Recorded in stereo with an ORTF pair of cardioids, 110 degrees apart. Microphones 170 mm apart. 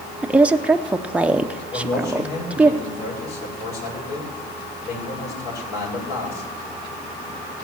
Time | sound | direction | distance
0.2 | a woman speaking | 5° right | 0.6 m
1.7 | a man speaking | 70° left | 8 m